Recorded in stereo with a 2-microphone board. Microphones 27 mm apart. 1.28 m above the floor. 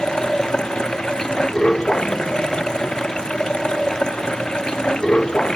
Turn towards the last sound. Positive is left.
turn(degrees=35)  # may be behind; listen again after turning